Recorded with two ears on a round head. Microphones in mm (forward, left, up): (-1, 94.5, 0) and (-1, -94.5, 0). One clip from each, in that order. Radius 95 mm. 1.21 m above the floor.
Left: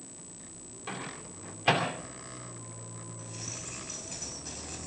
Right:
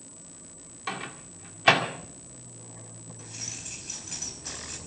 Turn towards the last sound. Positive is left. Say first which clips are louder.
# right 4 dB
turn(degrees=-20)  # may be behind; listen again after turning